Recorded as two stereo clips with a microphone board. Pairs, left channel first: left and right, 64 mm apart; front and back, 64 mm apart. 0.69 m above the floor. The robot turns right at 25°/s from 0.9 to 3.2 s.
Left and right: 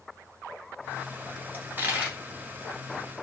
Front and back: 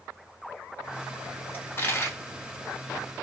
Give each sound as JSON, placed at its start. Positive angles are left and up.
{"t": 1.5, "sound": "a dropped coin", "azimuth_deg": -45, "distance_m": 0.8}